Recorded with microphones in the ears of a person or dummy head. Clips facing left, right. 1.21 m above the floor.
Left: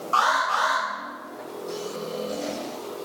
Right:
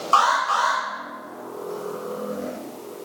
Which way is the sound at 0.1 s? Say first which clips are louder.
Right 3 dB; 70° right (ahead or behind).